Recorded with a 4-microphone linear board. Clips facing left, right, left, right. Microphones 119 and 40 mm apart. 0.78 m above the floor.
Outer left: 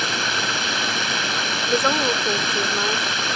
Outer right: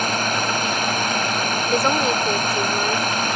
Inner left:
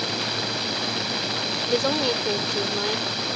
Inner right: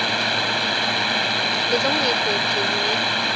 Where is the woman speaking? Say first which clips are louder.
Outer right 1 dB, inner right 1 dB; centre (ahead or behind).